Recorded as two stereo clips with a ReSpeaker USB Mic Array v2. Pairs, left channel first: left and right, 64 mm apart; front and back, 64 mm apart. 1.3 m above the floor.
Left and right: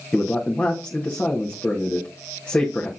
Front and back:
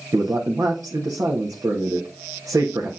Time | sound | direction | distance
0.1 | a man speaking | 150° left | 1.6 m